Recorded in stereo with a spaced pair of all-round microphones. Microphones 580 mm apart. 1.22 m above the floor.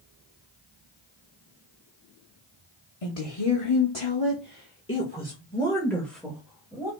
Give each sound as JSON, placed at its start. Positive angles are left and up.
{"t": 3.0, "sound": "a woman speaking", "side_deg": 70, "distance_m": 1.2}